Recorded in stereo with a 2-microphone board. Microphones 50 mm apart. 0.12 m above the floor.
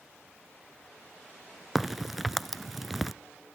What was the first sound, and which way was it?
A crack, centre (ahead or behind).